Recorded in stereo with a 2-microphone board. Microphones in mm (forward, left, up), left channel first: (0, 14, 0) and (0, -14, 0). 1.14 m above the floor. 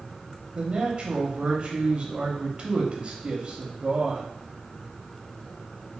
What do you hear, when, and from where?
0.6 s a man speaking: 30° right (ahead or behind), 0.9 m